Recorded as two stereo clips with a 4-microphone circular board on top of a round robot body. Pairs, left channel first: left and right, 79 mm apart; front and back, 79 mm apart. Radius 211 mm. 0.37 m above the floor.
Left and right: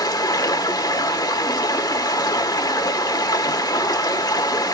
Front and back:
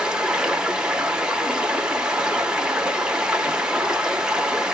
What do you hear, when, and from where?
0.0 s running water: 105° left, 1.1 m